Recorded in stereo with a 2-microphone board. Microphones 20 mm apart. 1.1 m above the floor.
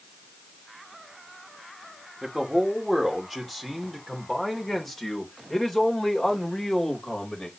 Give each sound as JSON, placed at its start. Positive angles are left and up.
{"t": 2.2, "sound": "a man speaking", "side_deg": -10, "distance_m": 2.5}